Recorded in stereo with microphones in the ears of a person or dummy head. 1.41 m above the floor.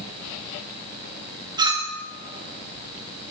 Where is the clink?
20° right (ahead or behind), 0.6 m.